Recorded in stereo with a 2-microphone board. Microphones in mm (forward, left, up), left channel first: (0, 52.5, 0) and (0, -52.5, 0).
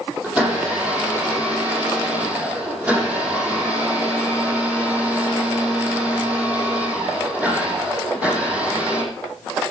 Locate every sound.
0.2 s a blender: 15° right (ahead or behind), 8.5 m